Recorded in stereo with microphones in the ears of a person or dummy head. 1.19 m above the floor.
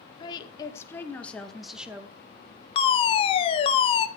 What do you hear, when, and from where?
0.2 s a woman speaking: 25° left (ahead or behind), 1.8 m; by 2.1 s 10° right (ahead or behind), 1.6 m
2.8 s a fire alarm: 30° left (ahead or behind), 1.0 m